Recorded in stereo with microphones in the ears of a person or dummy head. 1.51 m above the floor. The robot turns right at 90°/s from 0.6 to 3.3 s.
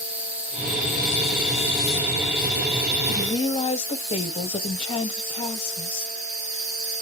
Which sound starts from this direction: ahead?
An insect, at 0.0 s.